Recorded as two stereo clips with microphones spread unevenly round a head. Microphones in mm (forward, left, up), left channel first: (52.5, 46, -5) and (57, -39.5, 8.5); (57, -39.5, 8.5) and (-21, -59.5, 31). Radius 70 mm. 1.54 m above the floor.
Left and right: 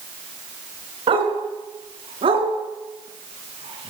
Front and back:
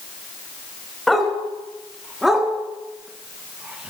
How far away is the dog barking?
About 5.5 m.